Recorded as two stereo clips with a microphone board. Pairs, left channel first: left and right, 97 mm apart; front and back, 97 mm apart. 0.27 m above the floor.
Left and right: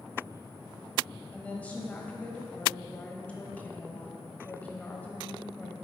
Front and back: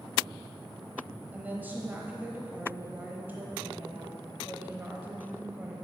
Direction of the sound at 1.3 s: 140° left.